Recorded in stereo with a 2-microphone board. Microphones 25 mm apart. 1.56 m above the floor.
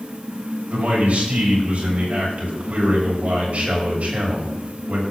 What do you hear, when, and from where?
0.7 s a man speaking: 55° right (ahead or behind), 5 m